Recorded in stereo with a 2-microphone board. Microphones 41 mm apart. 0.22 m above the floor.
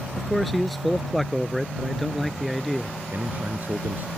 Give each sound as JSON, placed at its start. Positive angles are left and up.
{"t": 0.2, "sound": "a man speaking", "side_deg": 0}
{"t": 3.1, "sound": "a man speaking", "side_deg": -50}